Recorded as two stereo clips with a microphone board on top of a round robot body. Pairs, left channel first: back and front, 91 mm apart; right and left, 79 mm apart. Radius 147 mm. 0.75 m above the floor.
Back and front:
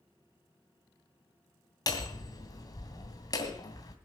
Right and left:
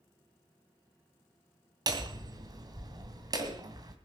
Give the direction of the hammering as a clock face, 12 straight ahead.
8 o'clock.